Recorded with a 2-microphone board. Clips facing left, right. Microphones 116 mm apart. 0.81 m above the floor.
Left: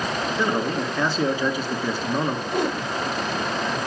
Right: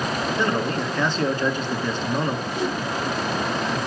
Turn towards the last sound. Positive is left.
turn(degrees=60)  # may be behind; listen again after turning